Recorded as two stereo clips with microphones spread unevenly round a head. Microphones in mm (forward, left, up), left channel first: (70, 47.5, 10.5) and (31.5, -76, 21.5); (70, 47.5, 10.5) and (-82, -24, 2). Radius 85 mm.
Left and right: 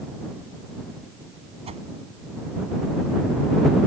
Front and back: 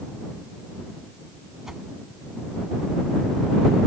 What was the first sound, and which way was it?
A whoosh, 65° right.